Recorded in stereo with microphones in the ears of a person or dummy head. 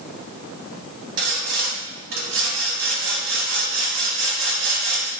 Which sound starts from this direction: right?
Sawing, at 1.2 s.